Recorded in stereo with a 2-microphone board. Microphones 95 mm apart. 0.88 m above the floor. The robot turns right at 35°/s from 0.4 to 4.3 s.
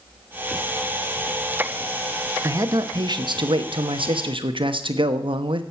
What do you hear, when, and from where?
2.4 s a man speaking: 145° right, 1.0 m; by 5.6 s 80° right, 1.0 m